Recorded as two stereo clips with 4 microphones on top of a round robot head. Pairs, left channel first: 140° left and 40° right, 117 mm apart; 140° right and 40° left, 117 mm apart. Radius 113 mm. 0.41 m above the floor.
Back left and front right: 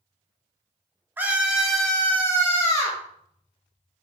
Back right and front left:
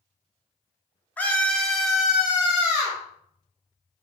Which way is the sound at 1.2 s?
85° right.